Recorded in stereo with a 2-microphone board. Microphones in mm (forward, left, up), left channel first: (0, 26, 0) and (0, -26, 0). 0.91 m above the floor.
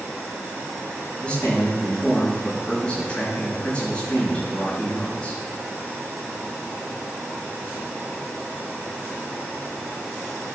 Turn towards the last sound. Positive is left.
turn(degrees=20)  # may be behind; listen again after turning